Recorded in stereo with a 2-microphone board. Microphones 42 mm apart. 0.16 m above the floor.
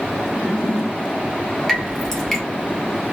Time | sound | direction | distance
1.7 | dripping | 10° left (ahead or behind) | 1.8 m